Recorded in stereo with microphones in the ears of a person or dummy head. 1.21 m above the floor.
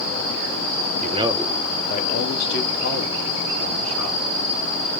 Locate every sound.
1.0 s a man speaking: 35° right (ahead or behind), 0.7 m; by 4.2 s 75° left (ahead or behind), 2.5 m